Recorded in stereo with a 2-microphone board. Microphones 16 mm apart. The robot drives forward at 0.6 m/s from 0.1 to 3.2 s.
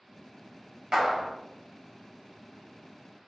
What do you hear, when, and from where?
0.9 s a clap: 30° right (ahead or behind), 1.6 m; by 1.3 s 35° right (ahead or behind), 1.5 m